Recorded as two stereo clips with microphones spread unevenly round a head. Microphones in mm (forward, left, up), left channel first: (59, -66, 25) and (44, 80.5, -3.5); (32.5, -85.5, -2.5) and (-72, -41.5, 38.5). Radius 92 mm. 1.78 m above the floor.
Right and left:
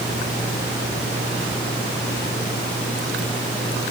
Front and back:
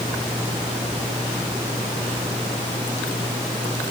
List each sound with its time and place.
Only background noise.